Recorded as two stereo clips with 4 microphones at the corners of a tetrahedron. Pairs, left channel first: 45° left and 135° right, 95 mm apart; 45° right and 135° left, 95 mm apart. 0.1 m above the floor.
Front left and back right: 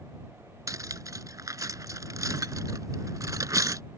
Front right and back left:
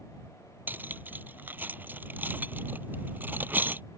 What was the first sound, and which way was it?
Cutlery clinking, 165° right.